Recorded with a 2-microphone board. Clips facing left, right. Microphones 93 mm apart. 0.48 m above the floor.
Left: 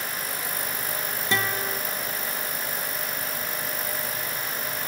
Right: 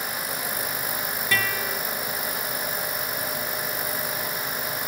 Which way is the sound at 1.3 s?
25° left (ahead or behind).